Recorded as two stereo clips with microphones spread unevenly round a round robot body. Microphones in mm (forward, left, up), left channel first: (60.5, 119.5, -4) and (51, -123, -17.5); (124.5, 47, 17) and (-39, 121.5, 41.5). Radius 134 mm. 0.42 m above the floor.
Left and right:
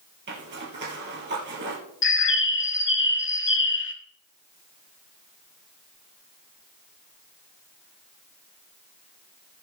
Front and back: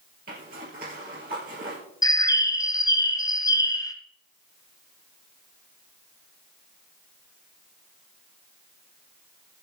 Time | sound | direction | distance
0.3 | a zipper | 145° right | 3 m
2.0 | a bird | 45° left | 1.4 m